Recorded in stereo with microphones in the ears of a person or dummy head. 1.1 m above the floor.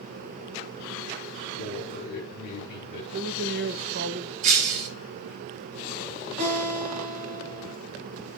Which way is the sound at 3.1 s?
60° right (ahead or behind).